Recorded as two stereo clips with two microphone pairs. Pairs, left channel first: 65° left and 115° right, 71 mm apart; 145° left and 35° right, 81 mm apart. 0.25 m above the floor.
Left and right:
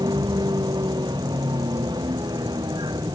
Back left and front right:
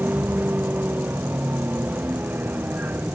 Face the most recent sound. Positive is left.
turn(degrees=-105)